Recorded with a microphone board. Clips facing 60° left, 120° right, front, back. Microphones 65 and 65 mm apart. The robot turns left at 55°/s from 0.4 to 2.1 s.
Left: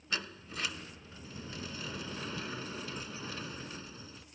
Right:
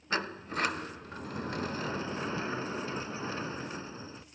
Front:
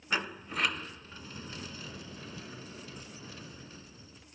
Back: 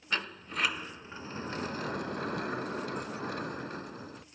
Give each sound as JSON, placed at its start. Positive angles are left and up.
{"t": 0.1, "sound": "a sliding door", "azimuth_deg": -80}